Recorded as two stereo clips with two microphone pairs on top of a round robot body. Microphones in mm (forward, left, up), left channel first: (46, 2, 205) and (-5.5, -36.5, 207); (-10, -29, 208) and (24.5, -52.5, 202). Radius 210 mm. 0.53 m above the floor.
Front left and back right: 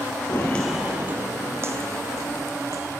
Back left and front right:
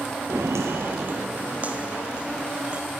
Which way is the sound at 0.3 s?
10° left.